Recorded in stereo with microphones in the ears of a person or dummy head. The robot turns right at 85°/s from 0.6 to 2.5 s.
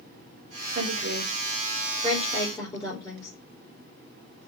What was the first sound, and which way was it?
A woman speaking, 50° right (ahead or behind).